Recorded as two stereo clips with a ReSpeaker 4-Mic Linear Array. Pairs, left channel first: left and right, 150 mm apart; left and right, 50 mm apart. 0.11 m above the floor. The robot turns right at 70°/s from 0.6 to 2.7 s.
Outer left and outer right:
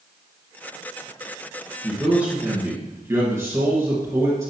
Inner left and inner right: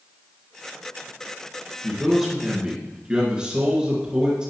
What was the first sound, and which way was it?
A man speaking, 5° left (ahead or behind).